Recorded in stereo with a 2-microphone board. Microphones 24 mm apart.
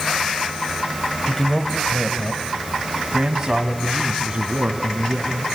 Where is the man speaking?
20° left (ahead or behind), 1.4 m; by 5.5 s 40° right (ahead or behind), 3 m.